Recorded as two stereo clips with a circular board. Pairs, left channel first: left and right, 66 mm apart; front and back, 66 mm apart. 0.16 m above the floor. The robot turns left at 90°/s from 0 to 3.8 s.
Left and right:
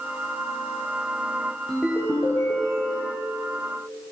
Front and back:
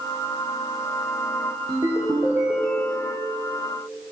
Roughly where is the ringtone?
Behind.